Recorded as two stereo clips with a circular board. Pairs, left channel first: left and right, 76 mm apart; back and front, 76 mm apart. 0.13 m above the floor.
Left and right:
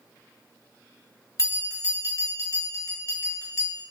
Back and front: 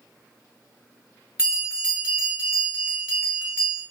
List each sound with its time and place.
1.4 s a bell: 70° left, 1.3 m